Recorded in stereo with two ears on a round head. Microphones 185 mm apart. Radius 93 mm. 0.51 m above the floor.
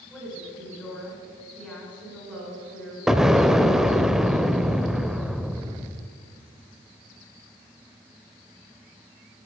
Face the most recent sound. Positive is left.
turn(degrees=0)  # may be behind; listen again after turning